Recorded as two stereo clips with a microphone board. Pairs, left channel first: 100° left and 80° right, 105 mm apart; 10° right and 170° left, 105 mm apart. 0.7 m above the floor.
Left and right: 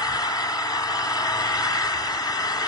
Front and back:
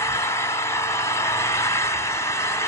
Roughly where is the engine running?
Ahead left.